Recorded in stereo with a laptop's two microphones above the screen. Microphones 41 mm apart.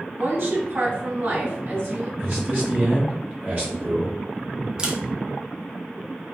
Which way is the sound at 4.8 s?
20° right (ahead or behind).